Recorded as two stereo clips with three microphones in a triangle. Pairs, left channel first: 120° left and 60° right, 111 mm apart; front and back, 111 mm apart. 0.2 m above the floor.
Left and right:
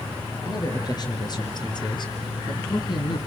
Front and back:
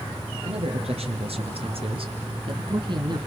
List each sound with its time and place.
0.4 s a man speaking: 170° left, 3.5 m; by 3.2 s 145° left, 2 m